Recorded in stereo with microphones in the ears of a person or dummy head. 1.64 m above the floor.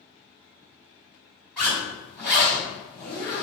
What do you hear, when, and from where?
1.6 s a zipper: 5° left (ahead or behind), 1.6 m